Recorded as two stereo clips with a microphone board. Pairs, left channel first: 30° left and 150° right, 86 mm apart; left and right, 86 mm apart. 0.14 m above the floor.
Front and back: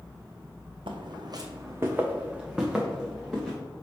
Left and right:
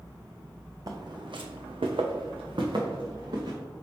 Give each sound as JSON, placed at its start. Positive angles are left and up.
{"t": 0.9, "sound": "footsteps", "azimuth_deg": -135, "distance_m": 0.6}